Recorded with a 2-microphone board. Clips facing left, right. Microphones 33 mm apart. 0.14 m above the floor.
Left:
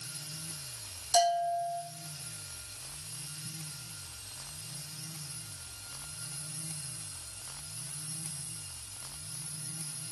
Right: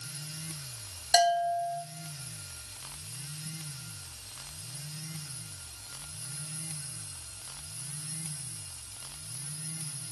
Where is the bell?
60° right (ahead or behind), 0.7 m.